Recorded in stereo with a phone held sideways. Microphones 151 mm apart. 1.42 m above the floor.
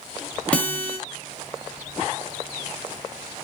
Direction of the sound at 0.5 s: 10° left (ahead or behind).